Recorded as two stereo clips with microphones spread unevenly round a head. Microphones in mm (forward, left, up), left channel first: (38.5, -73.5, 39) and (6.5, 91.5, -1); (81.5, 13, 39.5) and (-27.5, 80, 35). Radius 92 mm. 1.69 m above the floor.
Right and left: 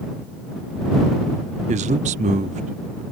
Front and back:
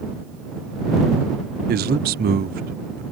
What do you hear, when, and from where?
1.7 s a man speaking: 155° left